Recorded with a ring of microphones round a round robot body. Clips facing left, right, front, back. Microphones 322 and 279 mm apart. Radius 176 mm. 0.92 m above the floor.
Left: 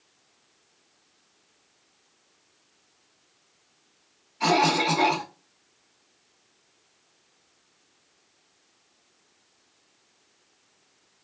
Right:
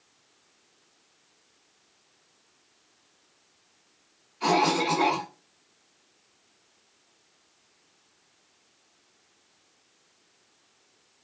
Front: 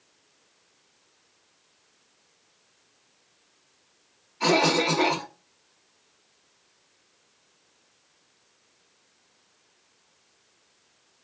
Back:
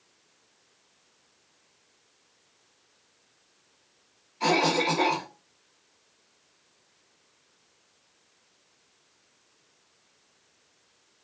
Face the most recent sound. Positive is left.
turn(degrees=75)